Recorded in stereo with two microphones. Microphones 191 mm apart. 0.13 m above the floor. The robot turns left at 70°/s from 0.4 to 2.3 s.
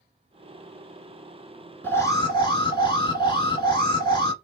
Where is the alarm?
165° left, 1.2 m; by 4.3 s 130° left, 1.2 m.